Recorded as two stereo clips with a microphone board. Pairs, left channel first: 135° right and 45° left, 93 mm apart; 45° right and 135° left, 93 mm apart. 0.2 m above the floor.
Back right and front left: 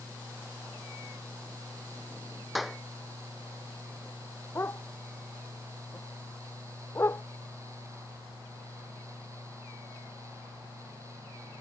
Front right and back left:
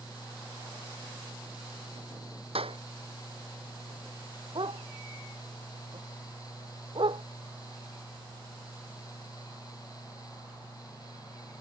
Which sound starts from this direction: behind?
A dog barking, at 4.5 s.